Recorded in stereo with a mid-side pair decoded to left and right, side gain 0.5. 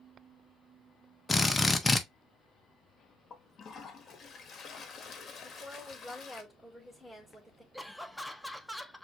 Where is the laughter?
Straight ahead, 0.8 m.